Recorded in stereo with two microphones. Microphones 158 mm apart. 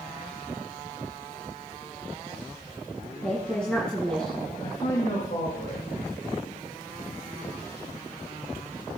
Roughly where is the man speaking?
Left.